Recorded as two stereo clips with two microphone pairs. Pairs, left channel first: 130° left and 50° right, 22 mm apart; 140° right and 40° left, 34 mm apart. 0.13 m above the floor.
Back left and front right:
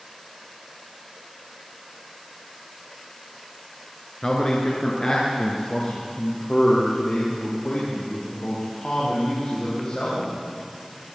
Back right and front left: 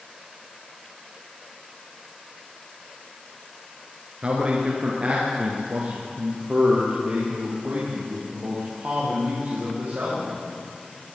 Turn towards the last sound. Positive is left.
turn(degrees=90)